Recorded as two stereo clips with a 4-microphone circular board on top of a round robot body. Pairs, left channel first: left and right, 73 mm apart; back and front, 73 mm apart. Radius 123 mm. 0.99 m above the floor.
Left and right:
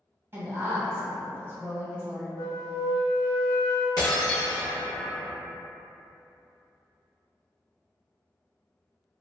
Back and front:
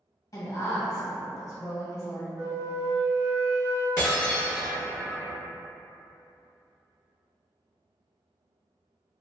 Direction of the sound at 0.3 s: 150° right.